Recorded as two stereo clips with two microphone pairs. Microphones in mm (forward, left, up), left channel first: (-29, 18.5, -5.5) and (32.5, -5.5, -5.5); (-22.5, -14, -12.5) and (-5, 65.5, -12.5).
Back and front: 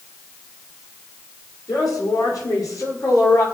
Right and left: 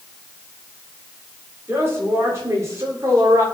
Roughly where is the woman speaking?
Behind left.